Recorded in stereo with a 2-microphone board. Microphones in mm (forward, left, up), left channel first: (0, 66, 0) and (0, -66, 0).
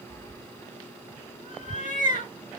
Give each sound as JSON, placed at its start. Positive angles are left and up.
{"t": 0.1, "sound": "a cat meowing", "side_deg": 40, "distance_m": 0.8}